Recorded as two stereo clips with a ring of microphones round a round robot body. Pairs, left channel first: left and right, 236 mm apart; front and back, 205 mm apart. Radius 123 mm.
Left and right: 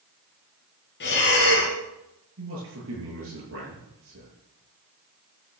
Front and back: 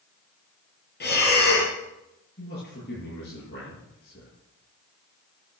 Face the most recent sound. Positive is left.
turn(degrees=-55)